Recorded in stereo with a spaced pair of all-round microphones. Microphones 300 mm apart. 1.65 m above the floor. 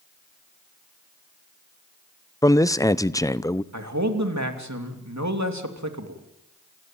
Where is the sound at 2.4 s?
10° left (ahead or behind), 0.7 m.